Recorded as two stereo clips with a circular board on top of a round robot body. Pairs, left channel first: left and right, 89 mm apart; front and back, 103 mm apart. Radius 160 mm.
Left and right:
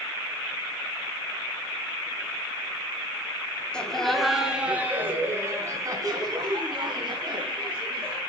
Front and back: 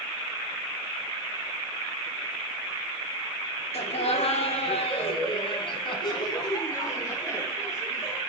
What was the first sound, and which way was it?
Laughter, 10° left.